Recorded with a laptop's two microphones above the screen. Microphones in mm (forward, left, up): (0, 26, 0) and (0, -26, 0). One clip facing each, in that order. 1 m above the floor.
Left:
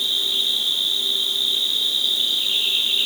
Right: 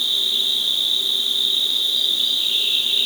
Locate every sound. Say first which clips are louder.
0.0 s an insect: right 1 dB; 20° left (ahead or behind), 6.5 m